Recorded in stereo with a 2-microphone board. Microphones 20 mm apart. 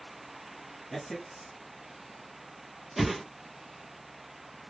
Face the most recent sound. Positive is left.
turn(degrees=0)  # may be behind; listen again after turning